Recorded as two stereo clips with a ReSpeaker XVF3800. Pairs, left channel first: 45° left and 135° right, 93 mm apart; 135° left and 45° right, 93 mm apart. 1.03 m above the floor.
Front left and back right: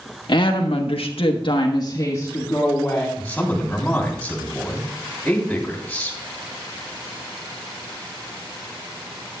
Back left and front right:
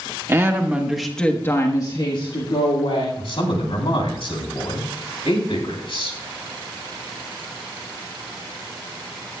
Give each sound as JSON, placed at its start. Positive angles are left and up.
{"t": 0.3, "sound": "a woman speaking", "azimuth_deg": 15, "distance_m": 1.8}
{"t": 3.2, "sound": "a man speaking", "azimuth_deg": 120, "distance_m": 3.0}